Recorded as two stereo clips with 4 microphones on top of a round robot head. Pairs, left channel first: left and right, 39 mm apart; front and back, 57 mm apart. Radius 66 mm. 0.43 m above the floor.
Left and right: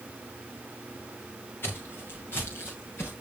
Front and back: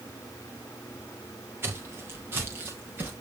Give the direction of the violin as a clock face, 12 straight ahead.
I don't hear a violin.